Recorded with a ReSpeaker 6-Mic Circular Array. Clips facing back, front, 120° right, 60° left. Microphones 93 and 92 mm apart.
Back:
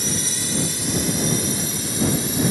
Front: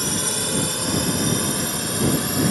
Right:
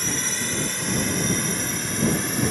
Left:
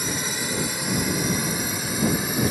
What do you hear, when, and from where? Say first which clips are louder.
0.0 s a drone: front 2 dB, left 1 dB; 20° right; by 2.5 s 25° right